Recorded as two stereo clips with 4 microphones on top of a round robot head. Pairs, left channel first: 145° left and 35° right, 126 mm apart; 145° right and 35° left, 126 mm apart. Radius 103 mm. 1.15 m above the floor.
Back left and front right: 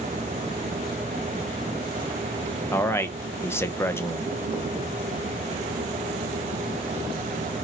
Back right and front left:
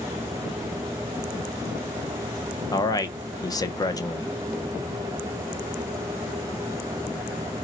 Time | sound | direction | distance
2.7 | a man speaking | 160° right | 0.6 m